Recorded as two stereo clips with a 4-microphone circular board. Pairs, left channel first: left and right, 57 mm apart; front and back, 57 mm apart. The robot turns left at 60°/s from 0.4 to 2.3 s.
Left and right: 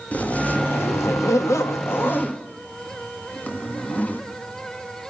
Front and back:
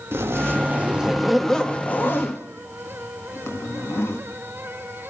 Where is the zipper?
150° left, 1.7 m; by 4.2 s 35° left, 1.7 m.